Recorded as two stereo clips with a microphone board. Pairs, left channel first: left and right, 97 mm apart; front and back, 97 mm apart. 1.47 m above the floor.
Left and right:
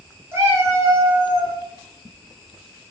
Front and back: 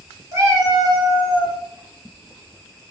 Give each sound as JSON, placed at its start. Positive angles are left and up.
{"t": 0.3, "sound": "a cat meowing", "azimuth_deg": -140, "distance_m": 0.8}